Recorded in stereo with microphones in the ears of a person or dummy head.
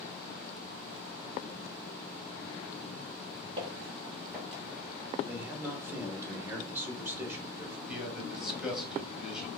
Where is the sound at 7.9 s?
5° right (ahead or behind), 1.4 m.